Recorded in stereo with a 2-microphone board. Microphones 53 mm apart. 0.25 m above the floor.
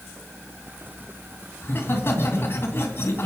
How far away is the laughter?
About 2 m.